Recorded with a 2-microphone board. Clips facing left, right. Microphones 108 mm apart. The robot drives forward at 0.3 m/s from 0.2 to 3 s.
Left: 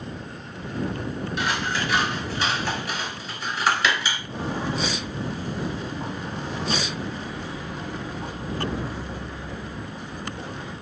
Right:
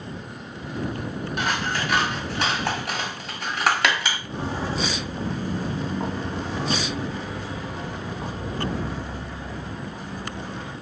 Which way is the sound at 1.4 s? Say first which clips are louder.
Right 1 dB; 55° right (ahead or behind).